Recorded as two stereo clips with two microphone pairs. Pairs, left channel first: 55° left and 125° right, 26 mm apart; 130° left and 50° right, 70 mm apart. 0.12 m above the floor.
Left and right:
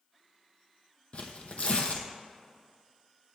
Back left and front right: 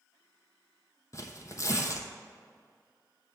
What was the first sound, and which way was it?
Tearing paper, 90° left.